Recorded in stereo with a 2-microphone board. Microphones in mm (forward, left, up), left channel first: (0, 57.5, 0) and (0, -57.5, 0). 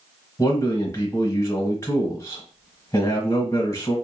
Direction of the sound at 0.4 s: 30° left (ahead or behind).